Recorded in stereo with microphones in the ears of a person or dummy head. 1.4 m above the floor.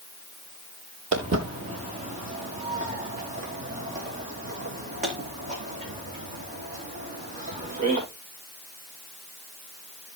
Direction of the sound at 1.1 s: 30° right (ahead or behind).